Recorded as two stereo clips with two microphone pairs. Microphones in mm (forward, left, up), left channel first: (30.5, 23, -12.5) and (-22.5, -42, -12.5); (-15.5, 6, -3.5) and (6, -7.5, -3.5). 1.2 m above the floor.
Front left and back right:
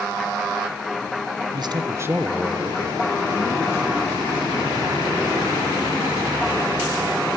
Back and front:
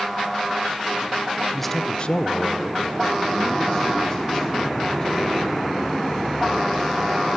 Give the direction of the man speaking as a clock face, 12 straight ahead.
4 o'clock.